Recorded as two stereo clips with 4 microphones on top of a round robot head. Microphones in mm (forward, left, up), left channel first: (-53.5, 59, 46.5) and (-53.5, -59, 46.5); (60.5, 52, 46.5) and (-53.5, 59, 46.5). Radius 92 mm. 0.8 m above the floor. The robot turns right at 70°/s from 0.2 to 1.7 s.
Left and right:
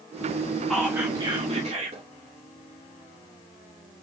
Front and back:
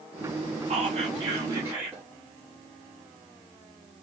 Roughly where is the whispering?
Behind.